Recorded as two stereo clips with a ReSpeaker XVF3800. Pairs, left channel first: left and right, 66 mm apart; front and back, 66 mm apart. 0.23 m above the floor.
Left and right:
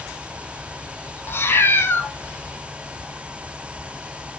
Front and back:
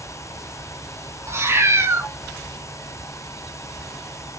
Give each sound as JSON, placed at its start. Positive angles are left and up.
{"t": 1.3, "sound": "a cat meowing", "azimuth_deg": 140, "distance_m": 0.8}